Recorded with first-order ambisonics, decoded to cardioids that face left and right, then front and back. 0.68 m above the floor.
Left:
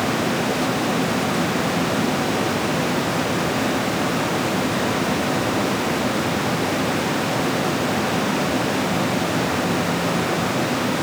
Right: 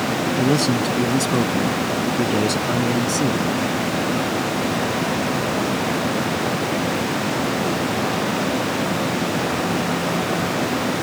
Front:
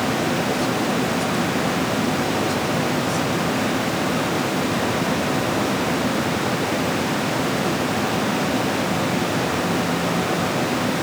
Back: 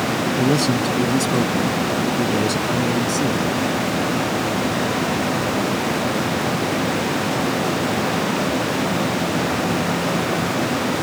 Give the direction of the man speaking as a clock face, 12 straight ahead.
4 o'clock.